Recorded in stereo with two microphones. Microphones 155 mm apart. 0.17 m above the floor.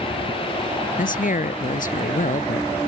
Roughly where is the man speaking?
Left.